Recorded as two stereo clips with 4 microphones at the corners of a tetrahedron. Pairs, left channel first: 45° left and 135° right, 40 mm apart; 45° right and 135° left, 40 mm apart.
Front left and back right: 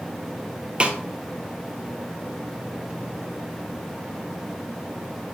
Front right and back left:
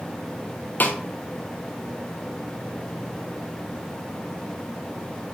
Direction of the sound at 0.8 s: 75° right.